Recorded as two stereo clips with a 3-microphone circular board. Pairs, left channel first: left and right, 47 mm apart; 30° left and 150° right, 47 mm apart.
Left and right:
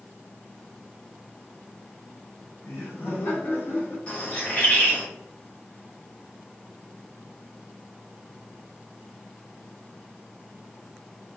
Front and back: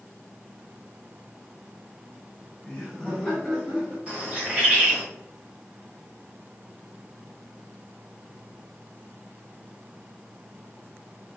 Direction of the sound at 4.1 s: 155° left.